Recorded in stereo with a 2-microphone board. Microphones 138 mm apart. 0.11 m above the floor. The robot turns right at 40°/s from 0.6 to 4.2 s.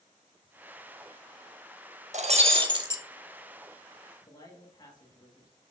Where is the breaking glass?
60° right, 0.9 m; by 3.0 s 25° right, 0.9 m.